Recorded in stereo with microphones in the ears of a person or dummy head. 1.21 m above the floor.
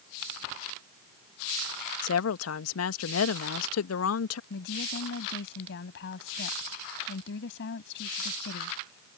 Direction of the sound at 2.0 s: 80° left.